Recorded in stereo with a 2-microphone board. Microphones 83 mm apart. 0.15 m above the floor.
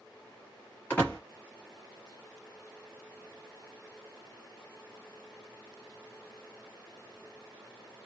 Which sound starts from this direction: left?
A door slam, at 0.9 s.